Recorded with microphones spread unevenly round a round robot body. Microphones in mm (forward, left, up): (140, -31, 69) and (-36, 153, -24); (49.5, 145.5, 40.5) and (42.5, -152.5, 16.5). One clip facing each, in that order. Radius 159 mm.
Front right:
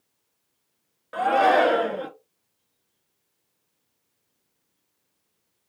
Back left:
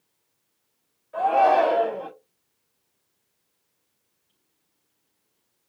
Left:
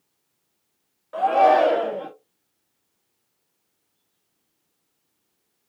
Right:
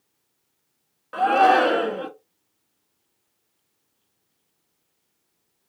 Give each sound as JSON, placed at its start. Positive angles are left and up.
{"t": 1.1, "sound": "a shout", "azimuth_deg": -55, "distance_m": 1.6}